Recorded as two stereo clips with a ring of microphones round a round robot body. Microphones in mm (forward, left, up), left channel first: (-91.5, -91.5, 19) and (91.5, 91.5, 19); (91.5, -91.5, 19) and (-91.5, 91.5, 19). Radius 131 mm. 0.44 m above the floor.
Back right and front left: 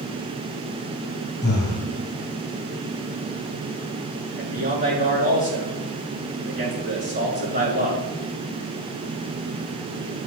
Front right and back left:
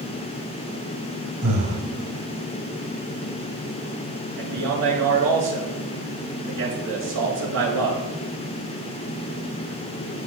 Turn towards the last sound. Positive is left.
turn(degrees=105)